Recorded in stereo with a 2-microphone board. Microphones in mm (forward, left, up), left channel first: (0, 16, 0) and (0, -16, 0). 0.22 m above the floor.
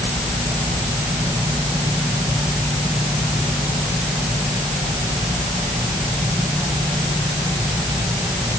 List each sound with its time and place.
Only background noise.